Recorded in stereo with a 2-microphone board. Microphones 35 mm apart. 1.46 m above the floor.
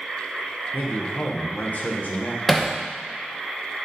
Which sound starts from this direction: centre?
Hammering, at 2.5 s.